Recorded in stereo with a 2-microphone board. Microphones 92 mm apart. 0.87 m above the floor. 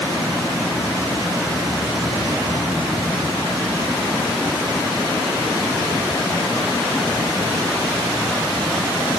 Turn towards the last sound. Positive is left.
No sound to turn to.